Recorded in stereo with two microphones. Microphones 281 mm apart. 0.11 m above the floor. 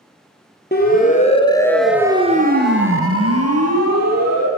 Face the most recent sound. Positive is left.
turn(degrees=-65)  # may be behind; listen again after turning